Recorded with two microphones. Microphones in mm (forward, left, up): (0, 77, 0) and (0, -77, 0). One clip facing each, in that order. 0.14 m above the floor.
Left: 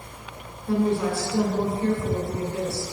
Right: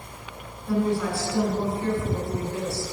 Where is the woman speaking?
25° left (ahead or behind), 1.4 m.